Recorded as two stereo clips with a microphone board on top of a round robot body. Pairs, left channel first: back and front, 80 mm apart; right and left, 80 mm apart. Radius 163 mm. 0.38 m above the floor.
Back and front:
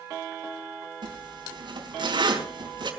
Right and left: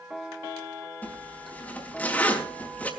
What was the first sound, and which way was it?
A zipper, 20° right.